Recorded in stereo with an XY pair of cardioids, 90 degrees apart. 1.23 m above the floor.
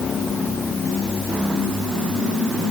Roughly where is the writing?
I don't hear writing.